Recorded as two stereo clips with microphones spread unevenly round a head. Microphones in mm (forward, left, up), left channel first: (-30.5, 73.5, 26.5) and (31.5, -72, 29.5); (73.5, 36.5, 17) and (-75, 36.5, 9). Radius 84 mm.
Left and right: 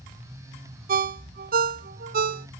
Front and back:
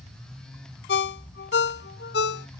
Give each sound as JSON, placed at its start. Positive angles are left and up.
{"t": 0.9, "sound": "a ringtone", "azimuth_deg": -30, "distance_m": 0.6}